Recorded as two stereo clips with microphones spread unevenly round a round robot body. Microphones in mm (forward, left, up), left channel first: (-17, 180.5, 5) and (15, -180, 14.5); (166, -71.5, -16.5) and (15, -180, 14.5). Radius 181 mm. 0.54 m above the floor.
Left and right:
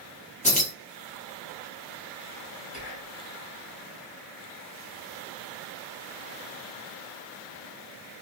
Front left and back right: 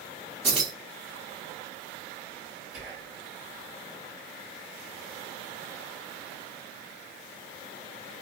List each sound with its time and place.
0.4 s keys jangling: 95° left, 0.6 m
2.7 s whispering: 160° left, 1.7 m